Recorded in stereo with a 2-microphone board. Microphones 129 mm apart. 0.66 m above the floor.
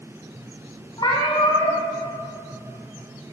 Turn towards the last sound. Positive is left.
turn(degrees=35)  # may be behind; listen again after turning